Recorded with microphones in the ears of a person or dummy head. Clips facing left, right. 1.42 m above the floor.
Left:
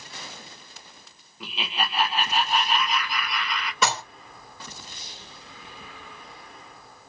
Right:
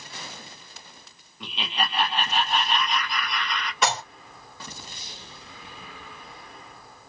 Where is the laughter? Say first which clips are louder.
Right 1 dB; 5° left (ahead or behind), 0.9 m.